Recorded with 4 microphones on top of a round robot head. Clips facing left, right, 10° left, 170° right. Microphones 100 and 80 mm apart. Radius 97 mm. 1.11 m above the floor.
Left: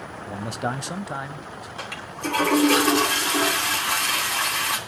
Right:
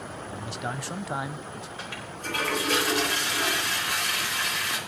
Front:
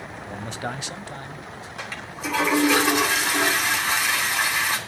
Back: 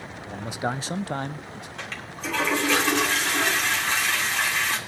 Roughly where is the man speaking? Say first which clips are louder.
Left 7 dB, back 3 dB; left.